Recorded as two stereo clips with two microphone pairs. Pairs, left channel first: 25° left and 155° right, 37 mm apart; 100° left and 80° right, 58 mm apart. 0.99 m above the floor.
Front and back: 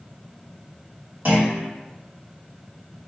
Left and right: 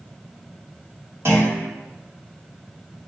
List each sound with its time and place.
1.2 s a clunk: 125° right, 1.9 m